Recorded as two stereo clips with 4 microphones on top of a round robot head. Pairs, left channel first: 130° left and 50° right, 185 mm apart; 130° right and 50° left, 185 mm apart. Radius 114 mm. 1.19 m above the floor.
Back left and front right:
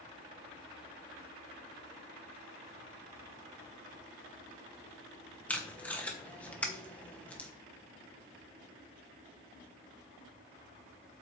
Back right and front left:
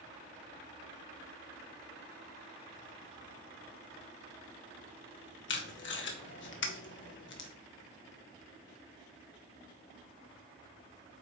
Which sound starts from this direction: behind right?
Tape being pulled, at 5.5 s.